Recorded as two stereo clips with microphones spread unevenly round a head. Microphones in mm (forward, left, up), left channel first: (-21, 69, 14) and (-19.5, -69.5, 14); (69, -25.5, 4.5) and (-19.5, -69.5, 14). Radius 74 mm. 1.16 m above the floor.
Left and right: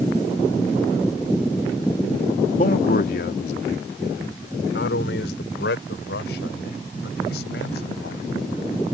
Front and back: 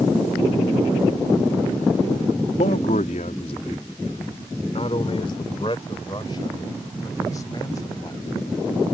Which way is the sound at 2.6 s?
50° left.